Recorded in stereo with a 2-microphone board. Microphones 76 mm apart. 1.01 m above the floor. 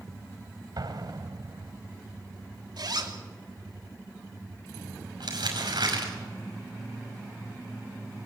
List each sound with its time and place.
0.8 s an explosion: 65° right (ahead or behind), 2 m
2.8 s a zipper: 70° right (ahead or behind), 2.5 m
5.2 s crumpling: 80° right, 5.5 m